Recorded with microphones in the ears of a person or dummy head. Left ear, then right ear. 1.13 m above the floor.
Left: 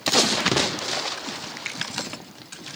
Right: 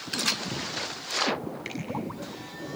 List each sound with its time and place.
1.6 s a finger snap: 25° left (ahead or behind), 6.5 m